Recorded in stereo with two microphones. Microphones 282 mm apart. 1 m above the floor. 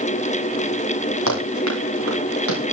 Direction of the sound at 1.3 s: 80° left.